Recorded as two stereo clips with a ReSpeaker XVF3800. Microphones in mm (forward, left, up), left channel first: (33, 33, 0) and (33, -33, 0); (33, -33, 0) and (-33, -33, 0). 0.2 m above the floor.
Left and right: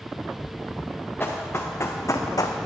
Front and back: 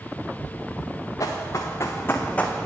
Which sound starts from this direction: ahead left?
Running footsteps, at 1.2 s.